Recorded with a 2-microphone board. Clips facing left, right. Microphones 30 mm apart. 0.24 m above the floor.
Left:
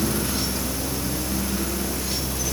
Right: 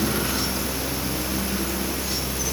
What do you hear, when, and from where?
Only background noise.